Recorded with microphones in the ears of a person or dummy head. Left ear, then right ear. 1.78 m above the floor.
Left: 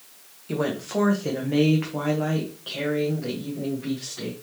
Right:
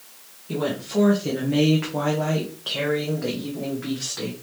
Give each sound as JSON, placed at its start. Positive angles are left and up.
{"t": 0.5, "sound": "a woman speaking", "side_deg": 55, "distance_m": 0.9}